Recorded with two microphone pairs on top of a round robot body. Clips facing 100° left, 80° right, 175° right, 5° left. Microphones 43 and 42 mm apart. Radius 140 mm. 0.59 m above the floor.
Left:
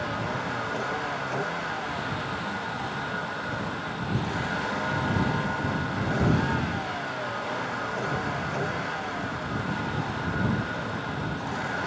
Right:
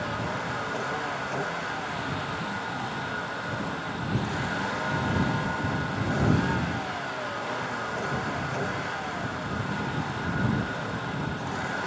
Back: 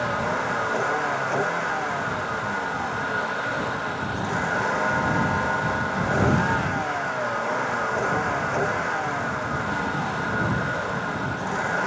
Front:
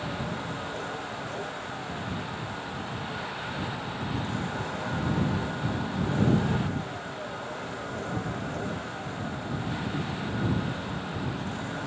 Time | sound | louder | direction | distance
0.0 | a vehicle | left 1 dB, back 9 dB | 175° right | ?